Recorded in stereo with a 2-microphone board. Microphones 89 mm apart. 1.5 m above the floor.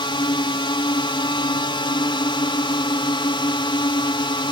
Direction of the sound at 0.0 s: 70° left (ahead or behind).